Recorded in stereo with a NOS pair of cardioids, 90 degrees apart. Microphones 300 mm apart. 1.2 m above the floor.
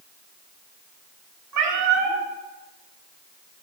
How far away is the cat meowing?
About 2 m.